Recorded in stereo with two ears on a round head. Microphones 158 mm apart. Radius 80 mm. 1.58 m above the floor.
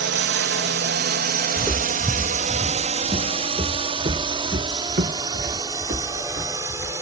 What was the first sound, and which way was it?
A drone, 75° right (ahead or behind).